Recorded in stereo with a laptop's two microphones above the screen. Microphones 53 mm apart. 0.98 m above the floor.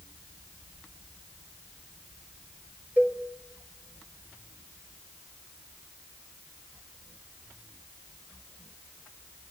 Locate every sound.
3.0 s a cowbell: 25° right (ahead or behind), 3.5 m